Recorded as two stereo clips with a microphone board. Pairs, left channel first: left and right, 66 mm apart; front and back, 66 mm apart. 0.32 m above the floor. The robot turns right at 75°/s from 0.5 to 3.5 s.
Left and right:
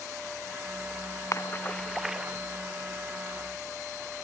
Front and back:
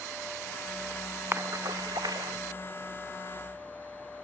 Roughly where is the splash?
Behind left.